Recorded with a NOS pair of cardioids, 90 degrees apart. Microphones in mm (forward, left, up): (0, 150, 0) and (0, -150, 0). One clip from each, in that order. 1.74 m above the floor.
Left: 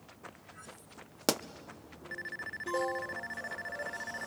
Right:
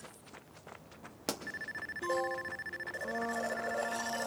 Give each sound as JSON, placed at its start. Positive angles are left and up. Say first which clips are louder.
{"t": 1.3, "sound": "a pop", "louder": "left 7 dB", "azimuth_deg": 35, "distance_m": 0.8}
{"t": 2.9, "sound": "a blender", "louder": "right 2 dB", "azimuth_deg": -65, "distance_m": 0.9}